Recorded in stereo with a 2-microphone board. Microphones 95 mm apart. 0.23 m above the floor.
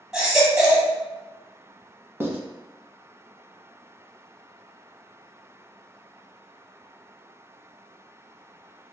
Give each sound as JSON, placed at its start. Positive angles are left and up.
{"t": 0.1, "sound": "a baby crying", "side_deg": -5, "distance_m": 1.0}
{"t": 2.2, "sound": "writing", "side_deg": -20, "distance_m": 0.7}